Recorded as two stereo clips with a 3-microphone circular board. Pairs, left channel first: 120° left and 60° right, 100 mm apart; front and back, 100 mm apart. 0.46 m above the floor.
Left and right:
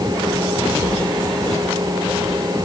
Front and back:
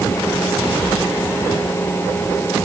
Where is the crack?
I don't hear a crack.